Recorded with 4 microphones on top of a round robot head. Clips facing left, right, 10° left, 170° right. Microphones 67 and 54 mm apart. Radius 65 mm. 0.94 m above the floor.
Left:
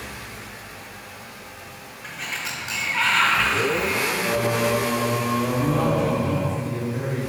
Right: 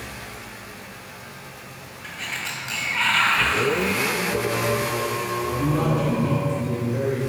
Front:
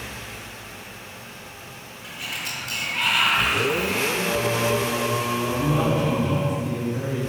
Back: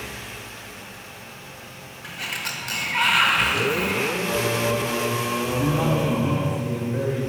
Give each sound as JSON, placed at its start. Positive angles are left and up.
{"t": 2.0, "sound": "a sliding door", "azimuth_deg": 170, "distance_m": 0.9}
{"t": 4.2, "sound": "singing", "azimuth_deg": 100, "distance_m": 0.5}
{"t": 5.6, "sound": "a man speaking", "azimuth_deg": -115, "distance_m": 2.0}